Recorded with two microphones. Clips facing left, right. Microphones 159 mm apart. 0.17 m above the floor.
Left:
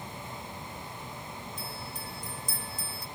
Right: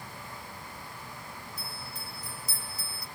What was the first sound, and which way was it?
A bell, 10° right (ahead or behind).